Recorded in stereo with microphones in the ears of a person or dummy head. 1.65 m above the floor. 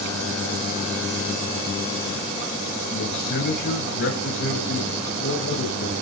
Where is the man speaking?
55° left (ahead or behind), 9 m.